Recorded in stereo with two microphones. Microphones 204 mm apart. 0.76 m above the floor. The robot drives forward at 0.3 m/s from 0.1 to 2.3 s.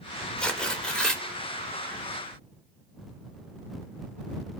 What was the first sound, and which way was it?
Tearing paper, 5° left (ahead or behind).